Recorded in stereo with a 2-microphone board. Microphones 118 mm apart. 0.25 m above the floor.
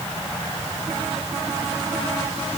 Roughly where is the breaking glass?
I don't hear breaking glass.